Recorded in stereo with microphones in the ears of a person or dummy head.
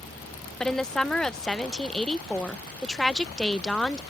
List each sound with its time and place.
0.6 s a woman speaking: 5° left (ahead or behind)